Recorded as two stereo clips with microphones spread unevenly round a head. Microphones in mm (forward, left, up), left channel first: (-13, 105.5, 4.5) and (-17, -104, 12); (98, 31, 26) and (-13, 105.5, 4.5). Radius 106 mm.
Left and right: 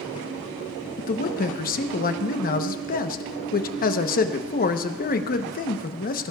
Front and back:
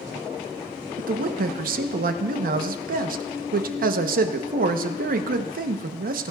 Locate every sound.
1.0 s a man speaking: 140° left, 1.0 m